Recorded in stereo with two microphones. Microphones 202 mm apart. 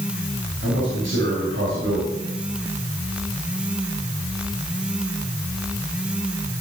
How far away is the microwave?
No microwave in this recording.